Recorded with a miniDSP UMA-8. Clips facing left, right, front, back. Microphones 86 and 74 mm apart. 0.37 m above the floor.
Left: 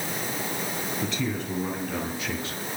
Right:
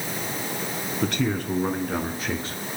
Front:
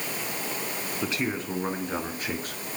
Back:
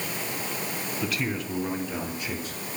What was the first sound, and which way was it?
A man speaking, 65° right.